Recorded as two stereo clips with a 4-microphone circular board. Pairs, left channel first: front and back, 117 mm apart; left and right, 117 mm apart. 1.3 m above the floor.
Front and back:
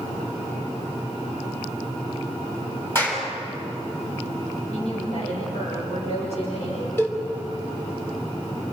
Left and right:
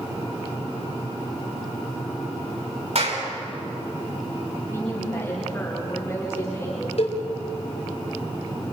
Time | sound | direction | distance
3.0 | a clap | 70° right | 7.5 m
4.7 | a woman speaking | 25° left | 7.5 m
7.0 | a cowbell | 70° left | 3.5 m